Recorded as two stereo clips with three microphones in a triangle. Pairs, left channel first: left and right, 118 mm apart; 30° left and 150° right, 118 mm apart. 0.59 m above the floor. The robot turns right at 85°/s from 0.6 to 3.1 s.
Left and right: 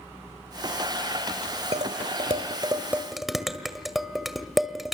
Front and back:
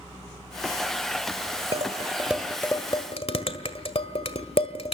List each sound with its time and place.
1.7 s dishes clattering: 120° right, 1.8 m; by 5.0 s straight ahead, 1.8 m